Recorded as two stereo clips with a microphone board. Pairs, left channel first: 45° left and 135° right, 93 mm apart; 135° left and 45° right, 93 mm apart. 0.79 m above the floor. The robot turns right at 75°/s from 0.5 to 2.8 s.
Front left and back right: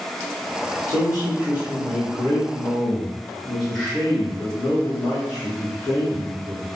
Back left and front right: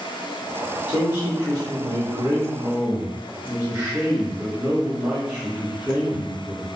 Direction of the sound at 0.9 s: 120° right.